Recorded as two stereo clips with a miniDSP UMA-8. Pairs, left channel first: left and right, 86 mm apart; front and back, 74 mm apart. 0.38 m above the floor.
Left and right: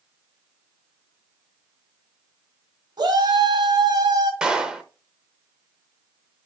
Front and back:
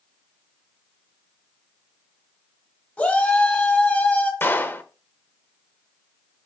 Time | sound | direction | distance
3.0 | a shout | 65° right | 2.5 m
4.4 | a clap | 20° right | 0.9 m